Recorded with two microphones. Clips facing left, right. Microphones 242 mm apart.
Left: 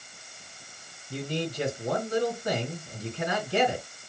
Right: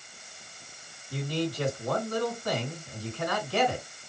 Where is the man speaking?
25° left (ahead or behind), 2.5 m.